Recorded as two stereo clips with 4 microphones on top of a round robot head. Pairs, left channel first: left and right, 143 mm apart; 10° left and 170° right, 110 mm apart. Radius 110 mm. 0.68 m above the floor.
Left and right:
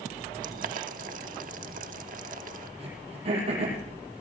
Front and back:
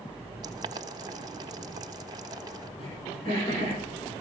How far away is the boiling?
About 0.9 m.